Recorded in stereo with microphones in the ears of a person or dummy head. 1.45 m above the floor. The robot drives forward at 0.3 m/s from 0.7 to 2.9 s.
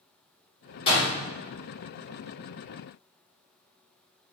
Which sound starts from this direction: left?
A door slam, at 0.9 s.